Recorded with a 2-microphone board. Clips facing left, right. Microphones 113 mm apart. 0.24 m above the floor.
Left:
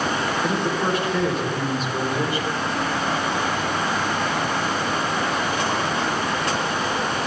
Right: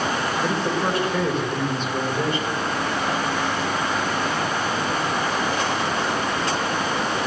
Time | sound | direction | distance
0.4 | a man speaking | centre (ahead or behind) | 8 m